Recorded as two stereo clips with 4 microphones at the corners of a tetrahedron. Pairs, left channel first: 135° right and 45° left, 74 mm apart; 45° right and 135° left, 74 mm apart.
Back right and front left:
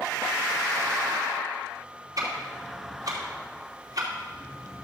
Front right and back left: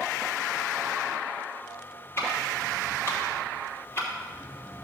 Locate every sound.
2.2 s ticking: 10° left, 2.5 m